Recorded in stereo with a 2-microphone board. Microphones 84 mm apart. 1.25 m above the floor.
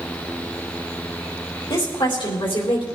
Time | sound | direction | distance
1.7 | a woman speaking | 65° left (ahead or behind) | 3.5 m